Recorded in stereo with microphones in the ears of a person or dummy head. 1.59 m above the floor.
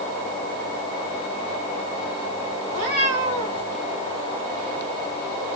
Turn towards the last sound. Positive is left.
turn(degrees=-30)  # may be behind; listen again after turning